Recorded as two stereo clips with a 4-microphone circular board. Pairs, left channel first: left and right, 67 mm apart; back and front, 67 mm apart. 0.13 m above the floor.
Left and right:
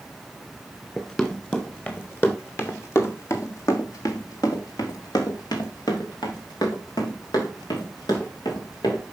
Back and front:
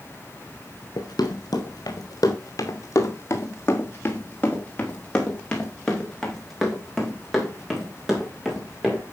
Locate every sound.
1.0 s running footsteps: 170° left, 2.5 m; by 9.0 s 80° left, 5 m